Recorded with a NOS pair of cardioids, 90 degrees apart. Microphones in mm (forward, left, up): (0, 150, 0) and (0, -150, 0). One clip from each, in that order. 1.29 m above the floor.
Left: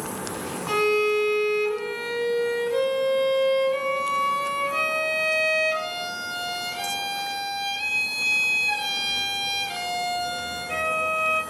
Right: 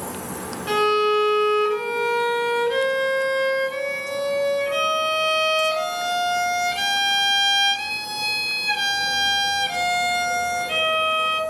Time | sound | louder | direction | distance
0.7 | a violin | right 3 dB | 30° right | 0.9 m